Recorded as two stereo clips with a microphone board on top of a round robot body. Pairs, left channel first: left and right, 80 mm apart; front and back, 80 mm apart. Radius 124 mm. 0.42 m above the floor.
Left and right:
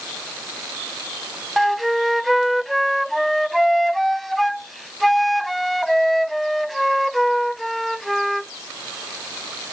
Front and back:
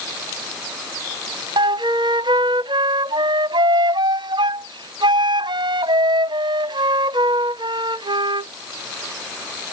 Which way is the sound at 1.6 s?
Straight behind.